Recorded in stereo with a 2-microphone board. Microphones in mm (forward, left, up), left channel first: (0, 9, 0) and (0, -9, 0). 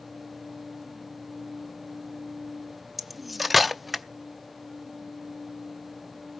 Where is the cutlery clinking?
Centre (ahead or behind), 0.5 m.